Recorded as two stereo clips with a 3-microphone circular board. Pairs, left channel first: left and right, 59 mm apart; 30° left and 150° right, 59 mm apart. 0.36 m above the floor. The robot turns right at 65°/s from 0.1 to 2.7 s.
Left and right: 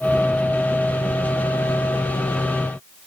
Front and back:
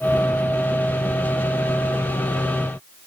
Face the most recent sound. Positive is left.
No sound to turn to.